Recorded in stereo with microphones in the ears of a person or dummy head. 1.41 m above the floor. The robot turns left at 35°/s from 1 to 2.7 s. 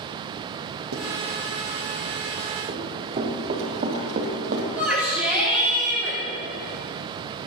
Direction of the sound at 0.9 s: 75° right (ahead or behind).